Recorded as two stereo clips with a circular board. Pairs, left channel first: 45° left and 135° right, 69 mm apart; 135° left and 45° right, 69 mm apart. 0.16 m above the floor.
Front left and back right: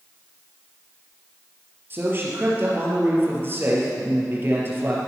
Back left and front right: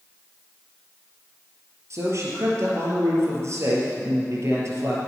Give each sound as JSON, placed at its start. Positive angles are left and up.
{"t": 1.9, "sound": "a man speaking", "azimuth_deg": -85, "distance_m": 4.0}